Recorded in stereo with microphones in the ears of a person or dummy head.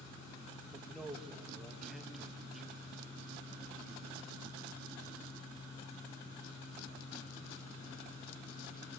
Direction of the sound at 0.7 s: Centre (ahead or behind).